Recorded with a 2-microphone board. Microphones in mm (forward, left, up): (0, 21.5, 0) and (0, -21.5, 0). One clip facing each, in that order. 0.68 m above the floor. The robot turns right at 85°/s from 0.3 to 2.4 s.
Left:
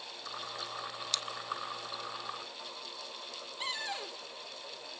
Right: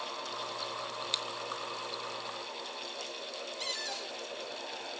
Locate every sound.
1.1 s scissors: 20° right (ahead or behind), 1.1 m; by 1.2 s 10° right (ahead or behind), 1.1 m
3.6 s a cupboard door: 20° left (ahead or behind), 1.4 m